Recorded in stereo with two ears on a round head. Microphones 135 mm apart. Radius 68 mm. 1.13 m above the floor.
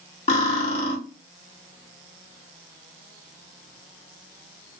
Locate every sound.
0.3 s cutlery clinking: 45° left (ahead or behind), 0.9 m